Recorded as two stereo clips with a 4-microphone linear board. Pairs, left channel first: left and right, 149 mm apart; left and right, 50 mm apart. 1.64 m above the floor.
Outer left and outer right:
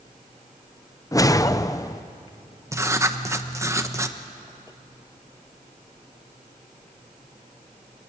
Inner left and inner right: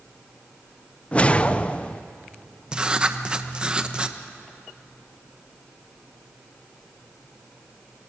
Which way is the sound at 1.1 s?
25° left (ahead or behind).